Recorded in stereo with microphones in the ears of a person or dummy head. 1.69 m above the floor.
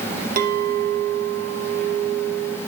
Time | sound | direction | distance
0.4 | a clink | 50° right (ahead or behind) | 1.4 m